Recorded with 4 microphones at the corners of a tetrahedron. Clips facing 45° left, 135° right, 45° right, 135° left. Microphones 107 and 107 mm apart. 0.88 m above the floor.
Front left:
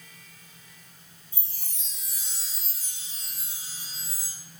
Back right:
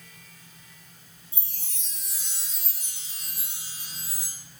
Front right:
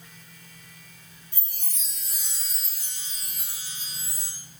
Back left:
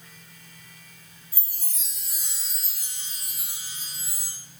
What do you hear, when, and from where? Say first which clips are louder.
1.3 s a chime: back right 1 dB, front right 1 dB; 140° right, 4 m